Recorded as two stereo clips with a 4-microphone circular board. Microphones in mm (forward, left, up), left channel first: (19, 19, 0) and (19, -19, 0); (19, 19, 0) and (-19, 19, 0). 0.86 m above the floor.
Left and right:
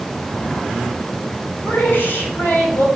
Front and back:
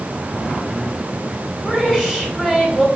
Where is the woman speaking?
115° left, 2.5 m.